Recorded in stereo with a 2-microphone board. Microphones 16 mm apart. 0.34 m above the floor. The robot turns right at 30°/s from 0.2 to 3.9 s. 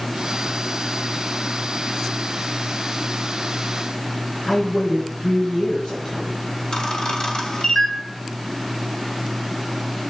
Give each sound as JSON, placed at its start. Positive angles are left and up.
{"t": 4.5, "sound": "a woman speaking", "side_deg": 80, "distance_m": 5.5}
{"t": 6.7, "sound": "a camera shutter", "side_deg": 50, "distance_m": 2.0}